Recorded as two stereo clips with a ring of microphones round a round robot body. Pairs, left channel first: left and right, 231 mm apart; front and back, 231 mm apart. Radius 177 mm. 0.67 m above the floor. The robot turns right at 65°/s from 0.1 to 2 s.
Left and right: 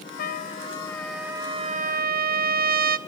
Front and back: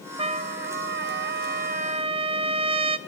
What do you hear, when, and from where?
0.2 s a trumpet: 120° left, 0.8 m; by 3.0 s 125° right, 0.8 m